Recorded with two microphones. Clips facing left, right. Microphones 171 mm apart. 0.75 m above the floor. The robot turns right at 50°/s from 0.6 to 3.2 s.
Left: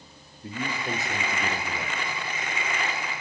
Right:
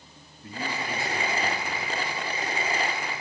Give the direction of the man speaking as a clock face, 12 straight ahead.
11 o'clock.